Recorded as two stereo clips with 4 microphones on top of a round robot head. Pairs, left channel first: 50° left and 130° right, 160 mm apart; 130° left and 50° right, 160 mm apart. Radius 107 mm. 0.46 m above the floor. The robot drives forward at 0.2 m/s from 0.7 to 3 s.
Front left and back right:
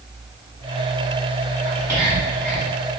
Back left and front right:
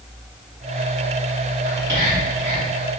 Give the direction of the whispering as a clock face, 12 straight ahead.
2 o'clock.